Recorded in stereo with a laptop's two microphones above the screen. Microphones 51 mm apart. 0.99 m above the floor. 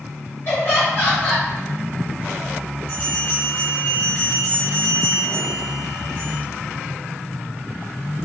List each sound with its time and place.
0.5 s laughter: 35° left (ahead or behind), 1.7 m
2.9 s a bell: 40° left (ahead or behind), 1.4 m